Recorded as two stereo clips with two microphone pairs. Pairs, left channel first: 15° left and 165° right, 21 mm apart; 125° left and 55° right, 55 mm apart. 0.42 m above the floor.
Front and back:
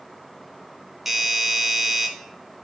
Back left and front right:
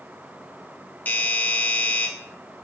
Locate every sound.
1.1 s a doorbell: 120° left, 1.3 m